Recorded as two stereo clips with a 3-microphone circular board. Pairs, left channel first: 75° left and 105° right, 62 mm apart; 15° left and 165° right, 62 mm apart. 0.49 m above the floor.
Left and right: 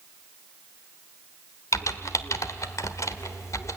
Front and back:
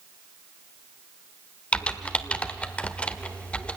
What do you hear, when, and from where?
1.7 s typing on a keyboard: 80° left, 1.1 m